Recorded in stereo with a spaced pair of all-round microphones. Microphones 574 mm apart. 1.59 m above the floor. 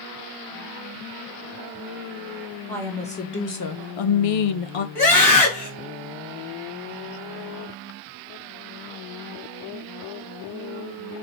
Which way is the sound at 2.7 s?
5° left (ahead or behind).